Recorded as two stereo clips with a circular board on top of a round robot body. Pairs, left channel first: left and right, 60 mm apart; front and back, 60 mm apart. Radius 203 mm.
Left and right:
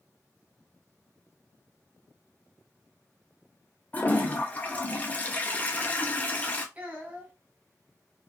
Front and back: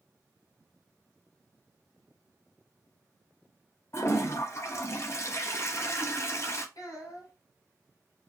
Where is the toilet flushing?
30° left, 0.7 m.